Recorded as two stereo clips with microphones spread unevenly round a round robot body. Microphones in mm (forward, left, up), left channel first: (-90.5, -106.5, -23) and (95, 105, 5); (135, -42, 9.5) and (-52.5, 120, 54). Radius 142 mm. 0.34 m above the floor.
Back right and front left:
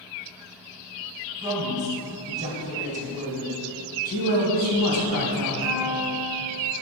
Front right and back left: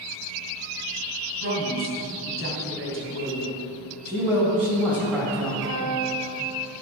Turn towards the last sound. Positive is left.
turn(degrees=-175)